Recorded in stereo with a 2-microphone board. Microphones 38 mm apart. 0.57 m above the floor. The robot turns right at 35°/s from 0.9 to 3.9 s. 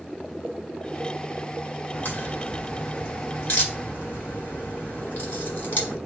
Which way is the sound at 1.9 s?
50° left (ahead or behind).